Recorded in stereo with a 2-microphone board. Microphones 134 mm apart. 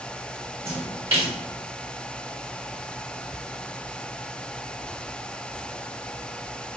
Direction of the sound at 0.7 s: 50° right (ahead or behind).